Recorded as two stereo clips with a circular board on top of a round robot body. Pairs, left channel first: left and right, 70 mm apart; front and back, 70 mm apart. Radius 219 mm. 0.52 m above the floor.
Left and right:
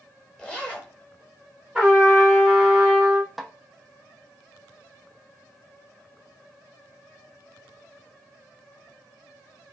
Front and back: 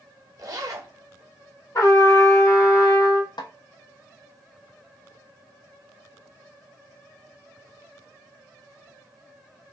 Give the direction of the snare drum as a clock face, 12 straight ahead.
12 o'clock.